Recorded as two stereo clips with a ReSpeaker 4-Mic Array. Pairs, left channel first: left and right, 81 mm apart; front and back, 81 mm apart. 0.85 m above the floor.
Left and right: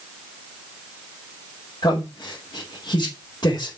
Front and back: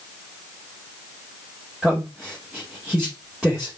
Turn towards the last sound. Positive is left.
turn(degrees=100)